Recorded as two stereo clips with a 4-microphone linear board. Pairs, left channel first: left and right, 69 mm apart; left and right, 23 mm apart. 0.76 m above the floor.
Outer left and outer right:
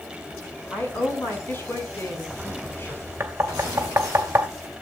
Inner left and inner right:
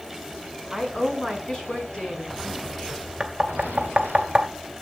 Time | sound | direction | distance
0.7 | a woman speaking | 30° left (ahead or behind) | 6.5 m
3.2 | knocking | 35° right (ahead or behind) | 2 m